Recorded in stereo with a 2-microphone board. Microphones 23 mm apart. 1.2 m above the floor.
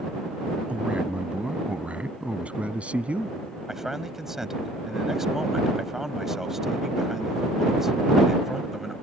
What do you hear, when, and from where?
0.7 s a man speaking: 75° right (ahead or behind); by 3.4 s 70° right (ahead or behind)
3.7 s a man speaking: 15° right (ahead or behind)